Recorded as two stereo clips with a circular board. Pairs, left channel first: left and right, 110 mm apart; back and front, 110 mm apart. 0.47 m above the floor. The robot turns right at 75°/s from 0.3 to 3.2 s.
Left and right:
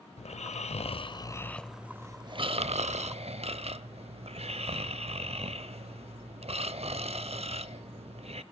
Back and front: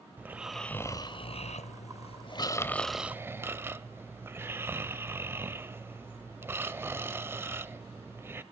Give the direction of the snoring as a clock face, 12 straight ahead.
10 o'clock.